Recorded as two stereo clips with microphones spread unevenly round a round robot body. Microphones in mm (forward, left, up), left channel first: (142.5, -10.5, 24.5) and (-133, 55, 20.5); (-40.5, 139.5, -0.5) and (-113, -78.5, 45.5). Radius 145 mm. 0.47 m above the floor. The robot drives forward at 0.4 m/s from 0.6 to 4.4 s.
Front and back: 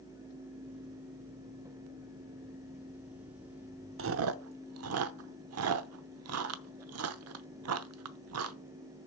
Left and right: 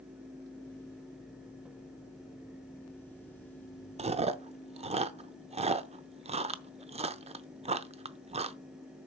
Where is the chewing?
175° right, 0.7 m.